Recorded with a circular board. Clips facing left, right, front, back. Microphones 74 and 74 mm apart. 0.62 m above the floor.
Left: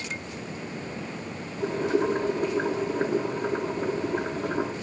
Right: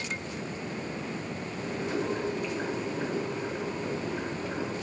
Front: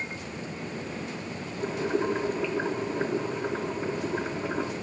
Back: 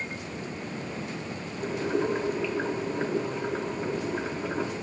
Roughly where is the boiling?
Left.